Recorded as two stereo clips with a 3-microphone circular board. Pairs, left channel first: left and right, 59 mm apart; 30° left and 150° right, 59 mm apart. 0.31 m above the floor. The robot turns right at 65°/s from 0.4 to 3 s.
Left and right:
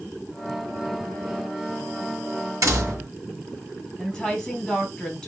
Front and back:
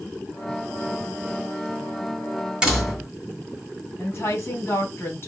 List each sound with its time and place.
2.6 s a door slam: 75° right, 2 m; by 3.1 s 50° right, 2 m
4.0 s a woman speaking: 5° left, 1.9 m